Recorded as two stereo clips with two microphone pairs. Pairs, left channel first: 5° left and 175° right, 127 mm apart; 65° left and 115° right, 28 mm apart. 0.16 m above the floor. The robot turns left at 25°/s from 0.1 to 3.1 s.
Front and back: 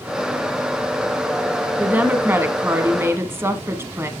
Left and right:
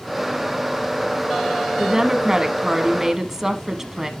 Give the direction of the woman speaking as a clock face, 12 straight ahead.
4 o'clock.